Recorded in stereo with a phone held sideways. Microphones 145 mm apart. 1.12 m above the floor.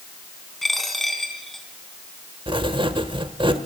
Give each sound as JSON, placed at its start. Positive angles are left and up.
{"t": 0.6, "sound": "a dropped coin", "side_deg": 0, "distance_m": 4.0}
{"t": 2.5, "sound": "writing", "side_deg": -35, "distance_m": 1.4}